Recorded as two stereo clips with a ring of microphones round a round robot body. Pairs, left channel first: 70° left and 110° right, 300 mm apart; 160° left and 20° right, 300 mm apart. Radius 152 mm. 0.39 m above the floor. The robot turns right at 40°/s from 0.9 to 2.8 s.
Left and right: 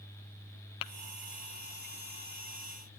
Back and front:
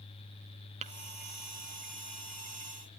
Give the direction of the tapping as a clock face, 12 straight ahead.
10 o'clock.